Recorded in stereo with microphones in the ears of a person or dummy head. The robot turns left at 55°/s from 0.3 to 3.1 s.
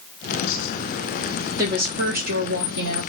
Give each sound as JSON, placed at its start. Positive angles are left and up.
{"t": 1.6, "sound": "a woman speaking", "azimuth_deg": -20, "distance_m": 1.0}